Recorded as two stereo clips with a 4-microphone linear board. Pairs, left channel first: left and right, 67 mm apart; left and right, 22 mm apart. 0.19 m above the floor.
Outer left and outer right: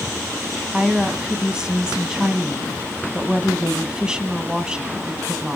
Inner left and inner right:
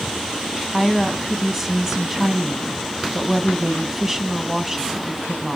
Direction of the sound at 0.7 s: 10° right (ahead or behind).